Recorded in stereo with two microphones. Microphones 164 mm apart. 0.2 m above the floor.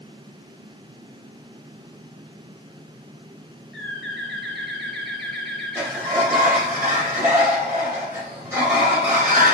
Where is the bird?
Centre (ahead or behind), 4.5 m.